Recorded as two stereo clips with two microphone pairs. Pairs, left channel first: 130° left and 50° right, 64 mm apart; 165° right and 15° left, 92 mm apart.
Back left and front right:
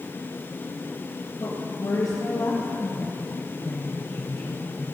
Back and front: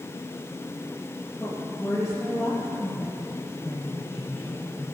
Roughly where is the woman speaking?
Left.